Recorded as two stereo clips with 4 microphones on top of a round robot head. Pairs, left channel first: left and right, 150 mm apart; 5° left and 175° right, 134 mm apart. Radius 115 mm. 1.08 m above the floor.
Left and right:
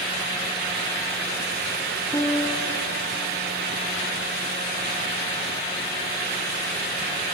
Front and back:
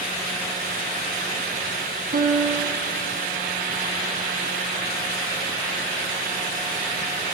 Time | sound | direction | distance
2.1 | a piano | 165° left | 2.5 m